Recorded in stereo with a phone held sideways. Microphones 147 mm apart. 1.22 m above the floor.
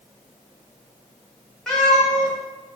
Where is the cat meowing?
5° left (ahead or behind), 1.1 m.